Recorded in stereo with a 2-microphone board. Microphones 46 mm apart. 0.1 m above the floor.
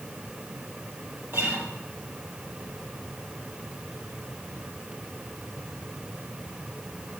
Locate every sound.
1.3 s a guitar: 60° right (ahead or behind), 3.5 m